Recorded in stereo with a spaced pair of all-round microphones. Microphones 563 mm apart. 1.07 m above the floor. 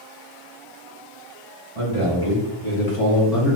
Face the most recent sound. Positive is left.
turn(degrees=15)  # may be behind; listen again after turning